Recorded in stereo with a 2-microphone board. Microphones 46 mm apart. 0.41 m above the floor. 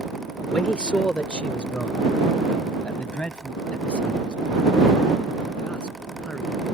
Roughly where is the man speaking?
Left.